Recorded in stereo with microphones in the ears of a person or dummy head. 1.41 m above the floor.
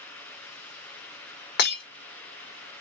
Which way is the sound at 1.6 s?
60° left (ahead or behind).